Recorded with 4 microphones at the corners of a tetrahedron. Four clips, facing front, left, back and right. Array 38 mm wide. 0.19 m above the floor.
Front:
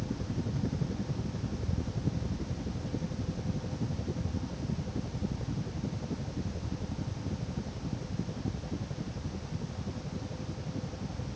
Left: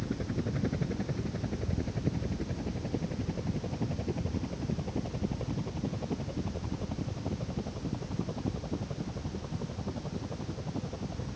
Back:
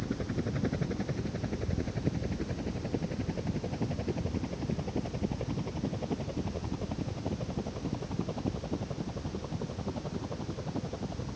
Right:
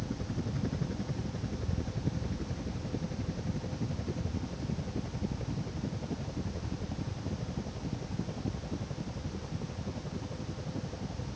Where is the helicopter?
150° left; by 11.4 s 160° left.